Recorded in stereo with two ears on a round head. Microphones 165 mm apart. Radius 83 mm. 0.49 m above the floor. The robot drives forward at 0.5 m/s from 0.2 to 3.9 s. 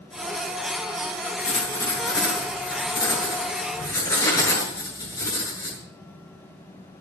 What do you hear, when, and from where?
1.4 s writing: 25° left (ahead or behind), 5.5 m; by 5.8 s 20° left (ahead or behind), 6.5 m